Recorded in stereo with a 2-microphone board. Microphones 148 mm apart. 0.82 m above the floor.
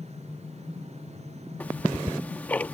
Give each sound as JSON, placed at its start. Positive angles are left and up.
{"t": 1.6, "sound": "ticking", "side_deg": 10}